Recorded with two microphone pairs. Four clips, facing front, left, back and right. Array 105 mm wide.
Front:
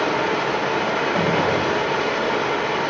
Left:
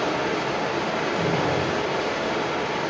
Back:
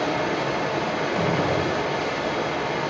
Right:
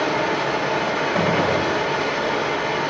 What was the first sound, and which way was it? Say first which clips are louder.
Running water: right 3 dB, front 3 dB; 20° right.